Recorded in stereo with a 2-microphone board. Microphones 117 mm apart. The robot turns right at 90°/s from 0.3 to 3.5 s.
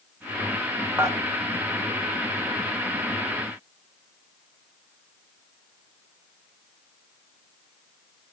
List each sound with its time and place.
1.0 s dishes clattering: 20° right (ahead or behind), 1.1 m; by 1.2 s 30° right (ahead or behind), 1.1 m